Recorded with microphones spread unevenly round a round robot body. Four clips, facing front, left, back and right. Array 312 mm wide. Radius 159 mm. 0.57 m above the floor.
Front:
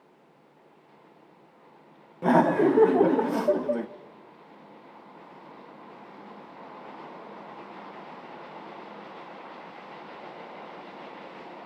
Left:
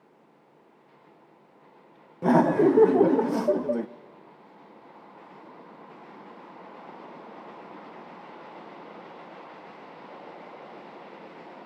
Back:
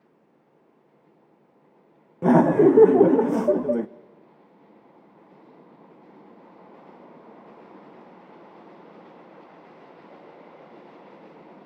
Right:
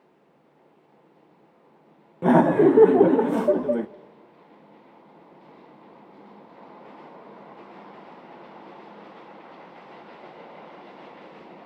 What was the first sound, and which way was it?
Laughter, 150° right.